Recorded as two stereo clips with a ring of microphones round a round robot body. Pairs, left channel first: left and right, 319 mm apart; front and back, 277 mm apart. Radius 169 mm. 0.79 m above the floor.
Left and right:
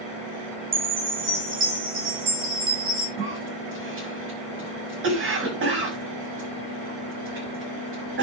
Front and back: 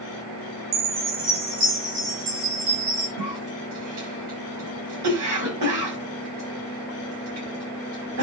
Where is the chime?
155° right, 7 m.